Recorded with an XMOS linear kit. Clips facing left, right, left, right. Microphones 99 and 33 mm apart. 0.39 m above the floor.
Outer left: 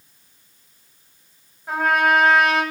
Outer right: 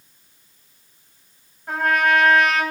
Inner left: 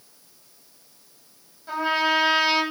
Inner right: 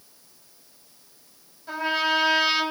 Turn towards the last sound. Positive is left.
turn(degrees=0)  # may be behind; listen again after turning